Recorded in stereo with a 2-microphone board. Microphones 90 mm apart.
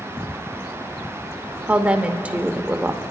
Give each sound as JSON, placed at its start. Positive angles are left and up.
{"t": 1.7, "sound": "a woman speaking", "side_deg": -15, "distance_m": 0.8}